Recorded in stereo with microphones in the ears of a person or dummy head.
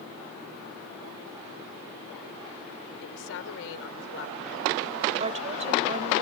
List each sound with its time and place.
3.0 s a woman speaking: 70° left (ahead or behind)
5.2 s a woman speaking: 35° right (ahead or behind)